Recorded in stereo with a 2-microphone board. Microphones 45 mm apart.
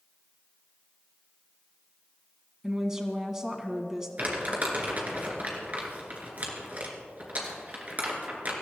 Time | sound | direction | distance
2.6 | a woman speaking | 15° right (ahead or behind) | 1.9 m
4.2 | crumpling | 40° right (ahead or behind) | 3 m